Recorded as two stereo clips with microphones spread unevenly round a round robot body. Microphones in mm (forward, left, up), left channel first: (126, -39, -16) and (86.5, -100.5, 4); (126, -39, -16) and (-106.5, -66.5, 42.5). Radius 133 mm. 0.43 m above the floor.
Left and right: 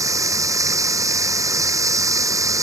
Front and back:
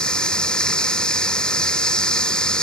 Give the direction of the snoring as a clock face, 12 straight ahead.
I don't hear snoring.